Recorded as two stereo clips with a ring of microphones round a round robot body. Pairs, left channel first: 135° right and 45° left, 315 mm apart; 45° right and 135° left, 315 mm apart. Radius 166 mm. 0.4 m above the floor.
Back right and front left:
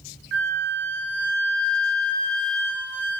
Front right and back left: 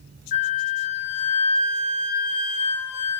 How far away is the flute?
About 0.7 m.